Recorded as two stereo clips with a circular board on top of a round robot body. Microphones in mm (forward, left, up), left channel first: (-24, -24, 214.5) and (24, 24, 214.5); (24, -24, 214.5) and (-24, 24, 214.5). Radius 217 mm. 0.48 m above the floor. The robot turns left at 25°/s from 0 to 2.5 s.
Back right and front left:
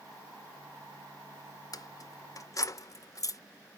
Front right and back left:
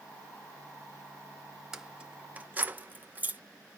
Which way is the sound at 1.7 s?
145° right.